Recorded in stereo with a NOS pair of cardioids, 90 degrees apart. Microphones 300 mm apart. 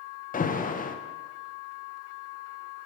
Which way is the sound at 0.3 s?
30° left.